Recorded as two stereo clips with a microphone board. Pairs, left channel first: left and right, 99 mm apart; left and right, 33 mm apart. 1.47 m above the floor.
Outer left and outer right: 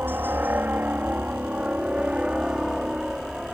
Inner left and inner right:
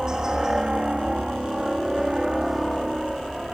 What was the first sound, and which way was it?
A helicopter, 20° right (ahead or behind).